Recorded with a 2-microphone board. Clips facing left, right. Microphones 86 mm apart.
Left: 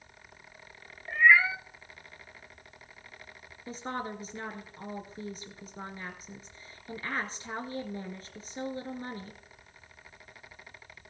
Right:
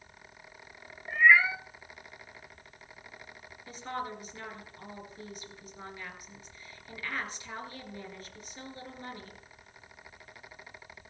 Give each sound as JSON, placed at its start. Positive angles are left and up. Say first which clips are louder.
{"t": 1.1, "sound": "a cat meowing", "louder": "even", "side_deg": 0, "distance_m": 0.6}
{"t": 3.7, "sound": "a woman speaking", "louder": "left 1 dB", "side_deg": 30, "distance_m": 2.5}